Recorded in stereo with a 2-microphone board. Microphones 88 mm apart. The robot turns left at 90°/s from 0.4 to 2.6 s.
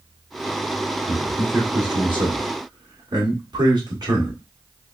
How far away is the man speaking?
About 2 m.